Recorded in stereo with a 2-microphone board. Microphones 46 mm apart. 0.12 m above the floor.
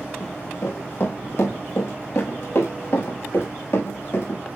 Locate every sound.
0.2 s running footsteps: 65° left (ahead or behind), 7 m; by 4.4 s 60° left (ahead or behind), 9.5 m